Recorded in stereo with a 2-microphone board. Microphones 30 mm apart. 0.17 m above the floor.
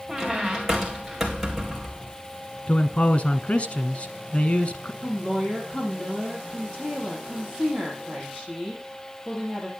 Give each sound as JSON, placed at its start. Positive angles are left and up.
{"t": 0.1, "sound": "a squeak", "side_deg": -15, "distance_m": 1.8}
{"t": 2.7, "sound": "a man speaking", "side_deg": 45, "distance_m": 1.3}
{"t": 5.0, "sound": "a woman speaking", "side_deg": 10, "distance_m": 7.0}